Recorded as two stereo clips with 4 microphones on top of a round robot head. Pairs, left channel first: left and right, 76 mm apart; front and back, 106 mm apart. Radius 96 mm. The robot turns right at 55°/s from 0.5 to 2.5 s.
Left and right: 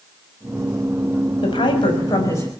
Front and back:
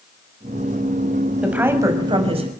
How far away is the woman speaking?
About 6 m.